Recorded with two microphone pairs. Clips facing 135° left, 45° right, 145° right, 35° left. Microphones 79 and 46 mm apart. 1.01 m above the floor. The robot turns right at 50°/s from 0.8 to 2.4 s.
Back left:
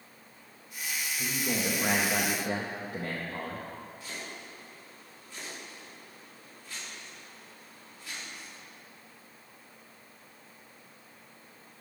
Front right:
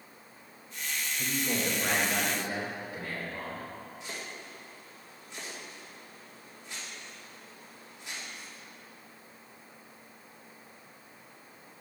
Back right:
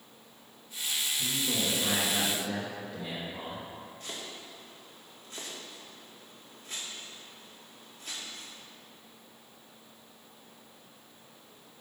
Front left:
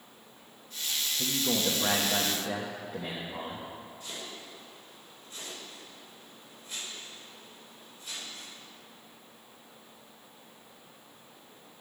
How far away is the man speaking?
About 1.0 m.